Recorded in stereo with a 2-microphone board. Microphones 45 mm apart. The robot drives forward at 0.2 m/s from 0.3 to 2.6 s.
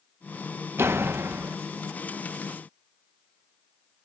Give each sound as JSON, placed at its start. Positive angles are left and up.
{"t": 0.8, "sound": "a door slam", "side_deg": -75, "distance_m": 1.0}